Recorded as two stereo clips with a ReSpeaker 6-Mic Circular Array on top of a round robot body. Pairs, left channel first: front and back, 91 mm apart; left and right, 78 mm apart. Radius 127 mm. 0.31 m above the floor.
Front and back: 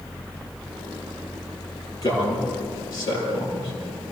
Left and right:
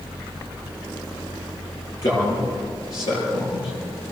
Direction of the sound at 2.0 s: 50° left.